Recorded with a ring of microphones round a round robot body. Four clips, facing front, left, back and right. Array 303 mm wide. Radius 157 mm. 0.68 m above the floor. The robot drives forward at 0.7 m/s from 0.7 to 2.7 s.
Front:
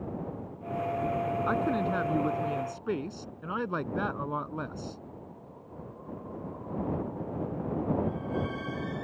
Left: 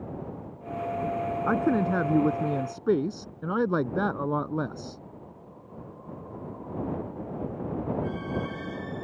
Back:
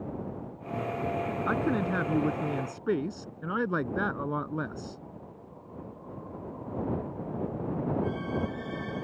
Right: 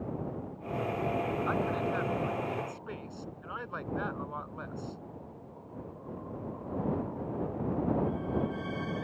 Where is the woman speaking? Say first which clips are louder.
Left 7 dB, back 2 dB; 100° left; by 5.0 s 110° left.